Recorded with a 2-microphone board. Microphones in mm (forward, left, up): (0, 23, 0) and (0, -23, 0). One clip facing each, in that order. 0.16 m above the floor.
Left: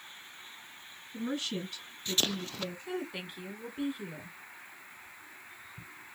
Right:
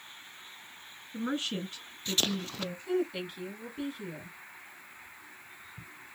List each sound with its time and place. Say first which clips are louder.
1.1 s a woman speaking: right 2 dB; 35° right (ahead or behind), 1.9 m
2.9 s a woman speaking: right 6 dB; 15° left (ahead or behind), 1.1 m